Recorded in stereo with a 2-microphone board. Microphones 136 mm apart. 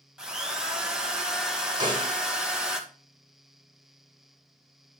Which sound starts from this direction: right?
A snare drum, at 1.8 s.